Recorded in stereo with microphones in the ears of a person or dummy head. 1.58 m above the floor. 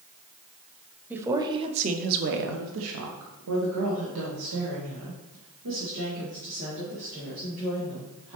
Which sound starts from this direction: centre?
A woman speaking, at 1.1 s.